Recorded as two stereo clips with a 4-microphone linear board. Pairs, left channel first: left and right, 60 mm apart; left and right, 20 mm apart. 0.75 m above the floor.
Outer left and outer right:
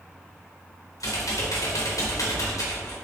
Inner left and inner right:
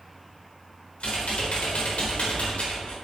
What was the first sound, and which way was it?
Typing on a keyboard, 75° left (ahead or behind).